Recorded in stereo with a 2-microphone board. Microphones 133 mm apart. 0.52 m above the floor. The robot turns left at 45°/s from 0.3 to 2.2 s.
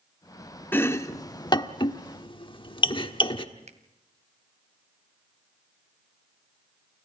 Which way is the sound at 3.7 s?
60° right (ahead or behind).